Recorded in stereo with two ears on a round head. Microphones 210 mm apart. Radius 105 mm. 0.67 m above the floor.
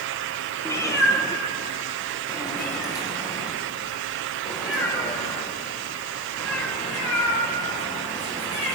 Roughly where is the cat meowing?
Centre.